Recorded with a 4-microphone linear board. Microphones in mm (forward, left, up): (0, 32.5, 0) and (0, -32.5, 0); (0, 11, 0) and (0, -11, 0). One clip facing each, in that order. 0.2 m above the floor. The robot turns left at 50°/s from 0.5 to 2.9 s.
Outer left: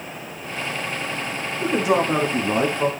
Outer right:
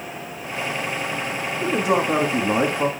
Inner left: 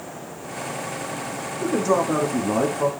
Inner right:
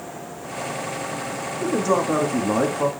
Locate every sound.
1.6 s a man speaking: 5° left (ahead or behind), 1.0 m; by 2.9 s 20° right (ahead or behind), 1.0 m